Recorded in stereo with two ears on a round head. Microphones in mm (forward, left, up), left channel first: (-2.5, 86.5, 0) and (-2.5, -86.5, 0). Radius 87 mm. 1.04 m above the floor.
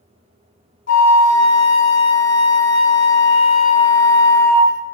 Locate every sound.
0.9 s a flute: 40° left (ahead or behind), 0.6 m